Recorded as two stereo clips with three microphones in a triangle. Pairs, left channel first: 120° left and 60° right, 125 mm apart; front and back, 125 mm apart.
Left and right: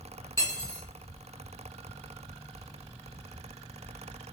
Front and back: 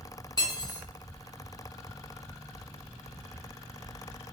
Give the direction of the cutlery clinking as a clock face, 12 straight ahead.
10 o'clock.